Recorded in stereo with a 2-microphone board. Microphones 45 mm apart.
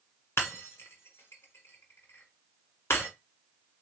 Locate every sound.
0.4 s breaking glass: 80° left, 1.6 m